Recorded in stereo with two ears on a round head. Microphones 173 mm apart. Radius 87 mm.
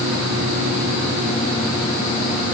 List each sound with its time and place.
Only background noise.